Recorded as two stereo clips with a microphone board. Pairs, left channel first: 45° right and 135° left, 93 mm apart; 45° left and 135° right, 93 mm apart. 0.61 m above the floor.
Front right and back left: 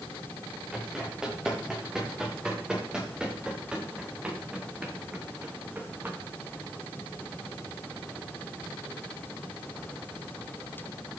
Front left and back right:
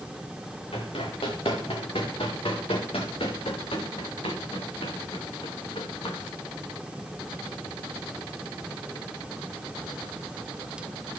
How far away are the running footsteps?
About 5.5 m.